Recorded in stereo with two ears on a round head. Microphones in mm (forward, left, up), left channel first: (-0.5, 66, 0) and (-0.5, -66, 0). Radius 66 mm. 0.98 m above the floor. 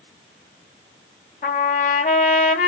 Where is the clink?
I don't hear a clink.